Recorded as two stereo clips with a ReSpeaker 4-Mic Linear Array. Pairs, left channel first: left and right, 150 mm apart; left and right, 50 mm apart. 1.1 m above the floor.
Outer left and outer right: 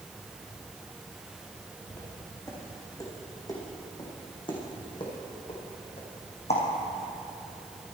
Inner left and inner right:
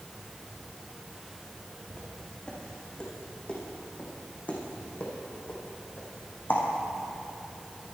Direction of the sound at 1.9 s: 15° left (ahead or behind).